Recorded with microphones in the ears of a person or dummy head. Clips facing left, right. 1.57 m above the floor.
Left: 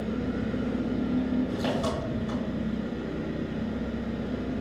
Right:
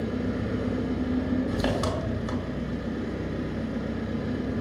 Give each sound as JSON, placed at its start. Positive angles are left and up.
{"t": 0.0, "sound": "an engine running", "side_deg": -70, "distance_m": 1.0}